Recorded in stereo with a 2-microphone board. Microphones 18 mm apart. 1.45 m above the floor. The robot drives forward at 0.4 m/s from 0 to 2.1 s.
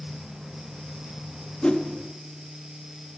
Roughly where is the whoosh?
Left.